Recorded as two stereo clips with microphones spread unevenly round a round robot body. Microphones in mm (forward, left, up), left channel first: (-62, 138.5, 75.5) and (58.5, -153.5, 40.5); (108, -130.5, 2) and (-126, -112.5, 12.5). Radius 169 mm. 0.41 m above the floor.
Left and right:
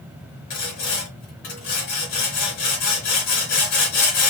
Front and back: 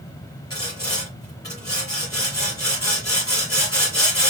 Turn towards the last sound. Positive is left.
turn(degrees=75)